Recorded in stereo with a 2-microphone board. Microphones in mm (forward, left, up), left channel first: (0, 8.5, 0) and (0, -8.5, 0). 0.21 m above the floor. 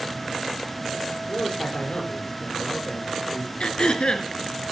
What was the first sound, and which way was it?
A man speaking, 65° left (ahead or behind).